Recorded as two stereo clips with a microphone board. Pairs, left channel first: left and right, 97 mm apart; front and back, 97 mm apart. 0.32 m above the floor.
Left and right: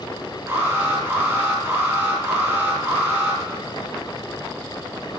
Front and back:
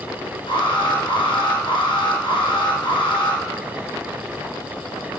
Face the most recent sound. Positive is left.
turn(degrees=-30)